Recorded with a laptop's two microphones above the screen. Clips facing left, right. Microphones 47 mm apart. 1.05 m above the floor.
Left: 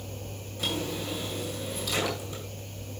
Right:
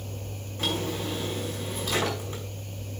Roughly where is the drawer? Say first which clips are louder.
Right 2 dB; right.